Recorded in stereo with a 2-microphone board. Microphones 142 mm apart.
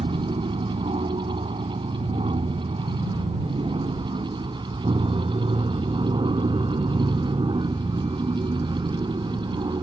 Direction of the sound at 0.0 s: 45° right (ahead or behind).